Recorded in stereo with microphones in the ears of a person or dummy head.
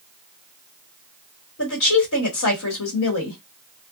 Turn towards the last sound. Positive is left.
turn(degrees=85)